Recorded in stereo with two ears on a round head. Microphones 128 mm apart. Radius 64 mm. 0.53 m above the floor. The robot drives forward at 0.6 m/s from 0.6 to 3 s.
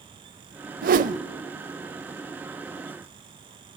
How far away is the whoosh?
About 0.7 m.